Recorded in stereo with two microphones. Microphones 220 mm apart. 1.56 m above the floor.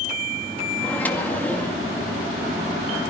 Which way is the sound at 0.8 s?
5° left (ahead or behind).